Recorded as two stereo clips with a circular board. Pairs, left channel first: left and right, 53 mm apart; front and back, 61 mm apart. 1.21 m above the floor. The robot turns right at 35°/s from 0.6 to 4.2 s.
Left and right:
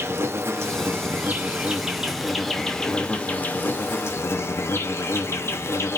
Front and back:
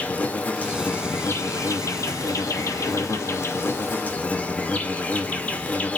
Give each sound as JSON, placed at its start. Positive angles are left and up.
{"t": 0.0, "sound": "an insect", "azimuth_deg": -60, "distance_m": 0.9}